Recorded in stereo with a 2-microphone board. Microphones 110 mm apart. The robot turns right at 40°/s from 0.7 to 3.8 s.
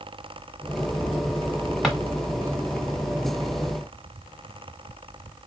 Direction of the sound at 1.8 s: Centre (ahead or behind).